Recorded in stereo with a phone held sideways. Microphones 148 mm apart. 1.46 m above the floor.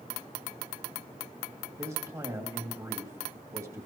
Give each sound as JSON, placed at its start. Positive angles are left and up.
{"t": 1.8, "sound": "a man speaking", "side_deg": -20, "distance_m": 2.5}